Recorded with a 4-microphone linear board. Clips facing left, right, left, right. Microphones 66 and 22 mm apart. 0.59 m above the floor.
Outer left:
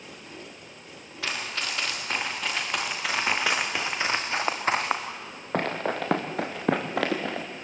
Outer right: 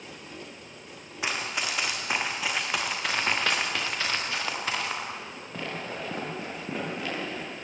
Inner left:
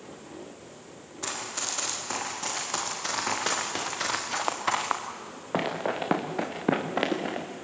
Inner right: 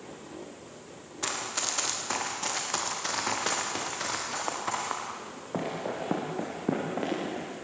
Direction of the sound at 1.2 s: 20° right (ahead or behind).